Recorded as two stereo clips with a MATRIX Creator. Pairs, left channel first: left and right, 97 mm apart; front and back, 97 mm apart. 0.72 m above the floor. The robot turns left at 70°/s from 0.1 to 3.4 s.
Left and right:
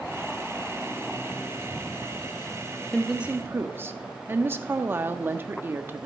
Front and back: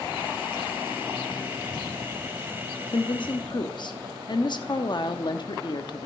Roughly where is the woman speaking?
Ahead.